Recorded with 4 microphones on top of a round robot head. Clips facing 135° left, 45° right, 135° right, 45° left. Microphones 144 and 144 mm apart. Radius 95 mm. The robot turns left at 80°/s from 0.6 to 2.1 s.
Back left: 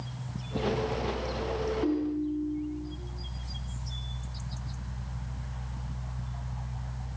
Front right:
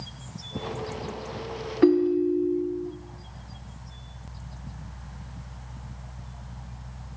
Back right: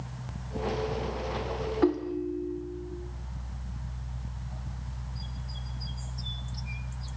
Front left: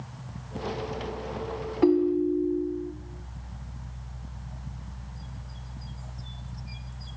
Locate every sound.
1.8 s a ringtone: 35° right, 0.7 m; by 2.9 s 55° right, 0.7 m